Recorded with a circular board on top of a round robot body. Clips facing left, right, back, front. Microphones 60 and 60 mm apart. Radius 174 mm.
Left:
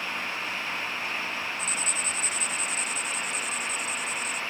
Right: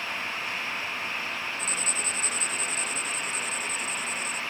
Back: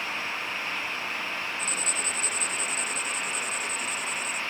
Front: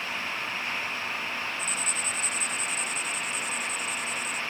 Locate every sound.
1.6 s writing: 140° right